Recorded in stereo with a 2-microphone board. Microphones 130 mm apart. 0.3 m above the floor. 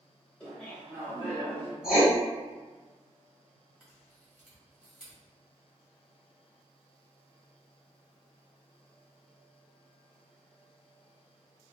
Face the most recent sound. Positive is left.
turn(degrees=-5)  # may be behind; listen again after turning